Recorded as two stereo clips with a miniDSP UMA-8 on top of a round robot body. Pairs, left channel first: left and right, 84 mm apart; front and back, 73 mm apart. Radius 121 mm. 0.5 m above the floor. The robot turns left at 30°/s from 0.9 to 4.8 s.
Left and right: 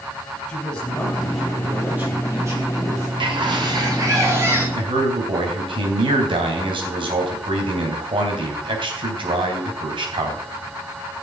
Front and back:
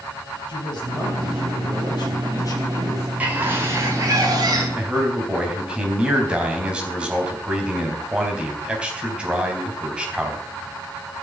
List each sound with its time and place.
0.5 s a man speaking: 10° left, 4 m; by 3.1 s 55° right, 4 m
3.2 s a bird: 110° right, 3.5 m; by 4.7 s 155° right, 3.5 m
4.8 s a man speaking: 100° right, 4 m; by 10.5 s 105° right, 4 m